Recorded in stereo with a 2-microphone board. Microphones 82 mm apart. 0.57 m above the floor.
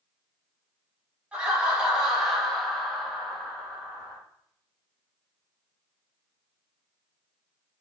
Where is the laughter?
15° right (ahead or behind), 1.7 m; by 4.2 s 30° left (ahead or behind), 1.5 m.